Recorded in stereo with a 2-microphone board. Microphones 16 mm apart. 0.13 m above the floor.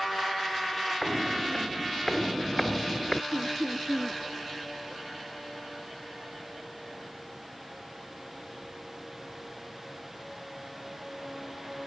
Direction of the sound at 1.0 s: 25° left (ahead or behind).